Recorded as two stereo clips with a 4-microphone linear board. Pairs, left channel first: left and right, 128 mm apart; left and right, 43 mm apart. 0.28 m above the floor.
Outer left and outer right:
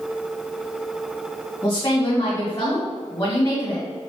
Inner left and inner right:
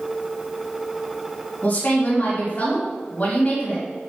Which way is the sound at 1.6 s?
25° left (ahead or behind).